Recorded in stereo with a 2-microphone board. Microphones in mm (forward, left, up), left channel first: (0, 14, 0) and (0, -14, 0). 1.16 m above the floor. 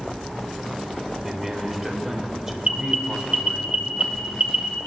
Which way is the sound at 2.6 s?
40° right (ahead or behind).